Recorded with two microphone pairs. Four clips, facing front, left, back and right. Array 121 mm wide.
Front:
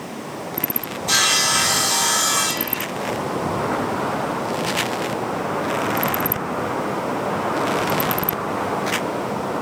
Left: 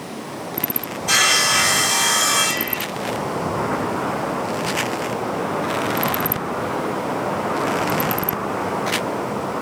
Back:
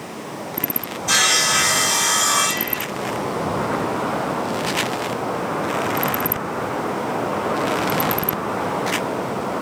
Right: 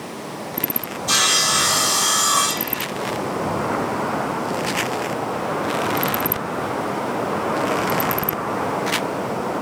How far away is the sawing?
About 2 m.